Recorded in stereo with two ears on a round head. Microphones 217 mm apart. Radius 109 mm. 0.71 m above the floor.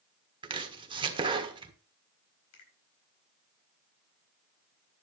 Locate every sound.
0.4 s chopping: 20° right (ahead or behind), 1.5 m
2.5 s a finger snap: 75° left (ahead or behind), 4 m